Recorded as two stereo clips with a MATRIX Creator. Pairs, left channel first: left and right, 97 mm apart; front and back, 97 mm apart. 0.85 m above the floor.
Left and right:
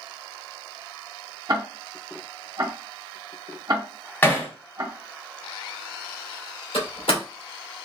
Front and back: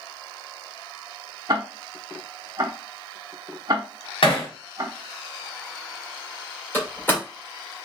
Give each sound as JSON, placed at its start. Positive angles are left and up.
{"t": 1.5, "sound": "ticking", "azimuth_deg": -135, "distance_m": 0.8}
{"t": 4.2, "sound": "hammering", "azimuth_deg": 20, "distance_m": 1.5}
{"t": 6.7, "sound": "a door slam", "azimuth_deg": 70, "distance_m": 2.0}